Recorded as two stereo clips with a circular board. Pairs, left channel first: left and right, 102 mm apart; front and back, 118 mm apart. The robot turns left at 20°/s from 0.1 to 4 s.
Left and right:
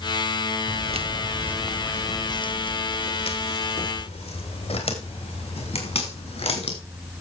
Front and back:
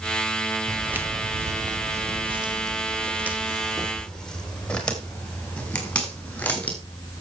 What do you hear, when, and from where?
0.7 s footsteps: 90° right, 1.1 m; by 6.8 s 75° left, 7 m